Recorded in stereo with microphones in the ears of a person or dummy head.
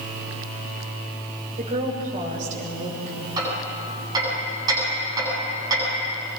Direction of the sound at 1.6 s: 40° right (ahead or behind).